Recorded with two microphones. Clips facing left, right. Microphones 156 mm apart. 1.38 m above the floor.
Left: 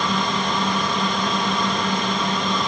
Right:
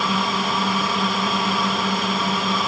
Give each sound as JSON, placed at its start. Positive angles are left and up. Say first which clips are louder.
{"t": 0.0, "sound": "a drone", "louder": "even", "side_deg": -5}